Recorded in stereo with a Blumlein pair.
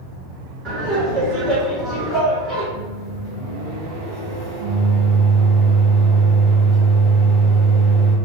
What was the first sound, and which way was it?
Laughter, 35° right.